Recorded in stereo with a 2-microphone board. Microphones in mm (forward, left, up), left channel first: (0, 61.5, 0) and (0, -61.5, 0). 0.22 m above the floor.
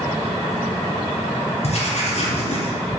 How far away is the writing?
About 2.5 m.